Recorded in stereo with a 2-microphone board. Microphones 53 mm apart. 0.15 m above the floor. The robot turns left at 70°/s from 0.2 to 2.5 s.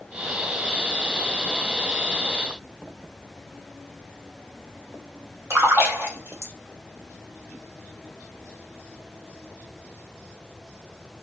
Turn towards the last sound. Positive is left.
turn(degrees=-50)  # may be behind; listen again after turning